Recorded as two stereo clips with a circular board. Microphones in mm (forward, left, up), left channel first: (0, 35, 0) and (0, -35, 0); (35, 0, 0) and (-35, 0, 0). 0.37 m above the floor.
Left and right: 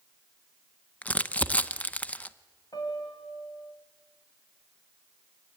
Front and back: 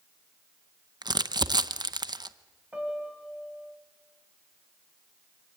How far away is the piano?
About 3 m.